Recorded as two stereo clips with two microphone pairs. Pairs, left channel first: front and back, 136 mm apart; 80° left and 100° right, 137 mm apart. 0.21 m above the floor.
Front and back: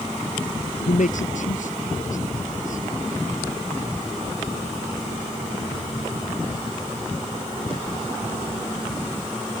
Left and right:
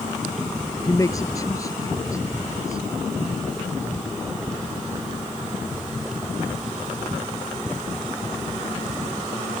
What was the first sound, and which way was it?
A man speaking, 15° left.